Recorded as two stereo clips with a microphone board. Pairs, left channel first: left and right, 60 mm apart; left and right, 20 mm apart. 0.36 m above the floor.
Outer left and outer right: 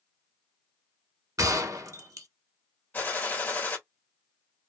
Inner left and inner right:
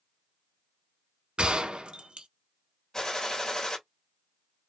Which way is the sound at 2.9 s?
35° left (ahead or behind).